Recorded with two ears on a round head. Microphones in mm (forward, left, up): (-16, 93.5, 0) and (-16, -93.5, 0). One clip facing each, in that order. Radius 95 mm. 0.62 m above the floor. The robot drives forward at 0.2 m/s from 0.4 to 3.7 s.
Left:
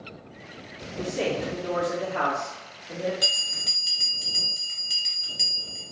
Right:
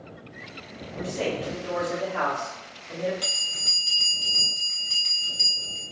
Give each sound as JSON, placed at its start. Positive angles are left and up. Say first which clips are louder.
{"t": 1.0, "sound": "a man speaking", "louder": "left 1 dB", "side_deg": 35, "distance_m": 0.7}
{"t": 3.2, "sound": "a bell", "louder": "left 2 dB", "side_deg": 15, "distance_m": 0.8}